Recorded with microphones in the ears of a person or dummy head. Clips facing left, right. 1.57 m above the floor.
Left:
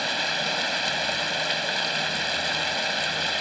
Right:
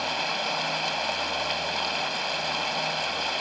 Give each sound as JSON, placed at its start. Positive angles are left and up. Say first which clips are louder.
{"t": 0.0, "sound": "running water", "louder": "even", "side_deg": 25}